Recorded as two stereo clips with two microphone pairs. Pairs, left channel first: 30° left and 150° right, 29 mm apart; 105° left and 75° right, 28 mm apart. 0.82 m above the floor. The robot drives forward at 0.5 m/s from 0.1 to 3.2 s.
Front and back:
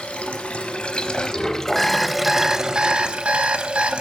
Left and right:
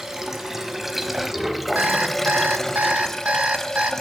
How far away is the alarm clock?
About 0.9 m.